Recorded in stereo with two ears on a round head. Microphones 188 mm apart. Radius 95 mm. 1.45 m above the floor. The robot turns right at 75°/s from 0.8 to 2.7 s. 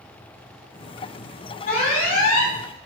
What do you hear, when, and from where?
1.7 s an alarm: 40° left, 5 m; by 2.5 s 110° left, 5 m